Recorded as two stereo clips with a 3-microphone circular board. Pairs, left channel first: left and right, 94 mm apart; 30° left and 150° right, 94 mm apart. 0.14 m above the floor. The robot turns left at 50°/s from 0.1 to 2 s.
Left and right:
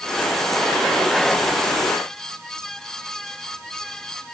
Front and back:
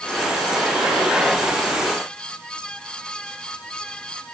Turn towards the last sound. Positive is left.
No sound to turn to.